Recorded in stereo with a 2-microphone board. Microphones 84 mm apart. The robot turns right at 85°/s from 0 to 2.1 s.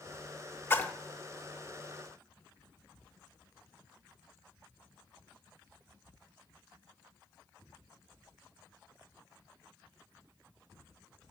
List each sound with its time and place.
0.7 s a splash: 25° left (ahead or behind), 0.5 m; by 0.9 s 10° left (ahead or behind), 0.5 m